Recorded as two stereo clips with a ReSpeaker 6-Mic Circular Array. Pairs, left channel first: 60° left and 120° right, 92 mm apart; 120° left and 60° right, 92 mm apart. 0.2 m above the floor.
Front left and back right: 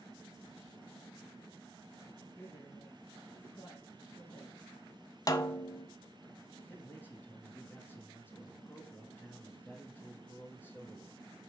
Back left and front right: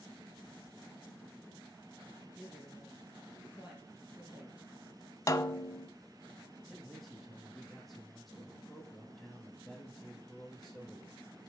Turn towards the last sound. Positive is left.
turn(degrees=35)